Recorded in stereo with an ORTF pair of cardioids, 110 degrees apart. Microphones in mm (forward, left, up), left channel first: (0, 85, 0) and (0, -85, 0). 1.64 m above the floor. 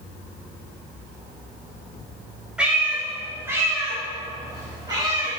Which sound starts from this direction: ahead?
A cat meowing, at 2.6 s.